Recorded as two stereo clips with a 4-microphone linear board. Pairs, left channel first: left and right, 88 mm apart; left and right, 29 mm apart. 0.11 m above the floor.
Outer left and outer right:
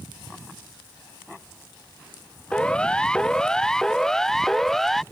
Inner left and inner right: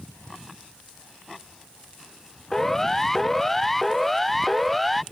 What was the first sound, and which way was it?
A siren, 10° left (ahead or behind).